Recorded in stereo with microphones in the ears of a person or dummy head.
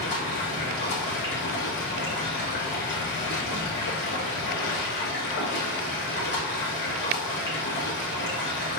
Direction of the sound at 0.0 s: 45° left (ahead or behind).